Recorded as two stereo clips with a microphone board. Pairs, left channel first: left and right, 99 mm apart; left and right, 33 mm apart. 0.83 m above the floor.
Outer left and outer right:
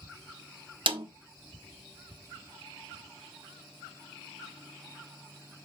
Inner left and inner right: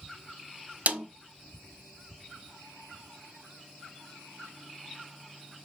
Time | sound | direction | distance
0.9 | a snare drum | 60° right (ahead or behind) | 1.1 m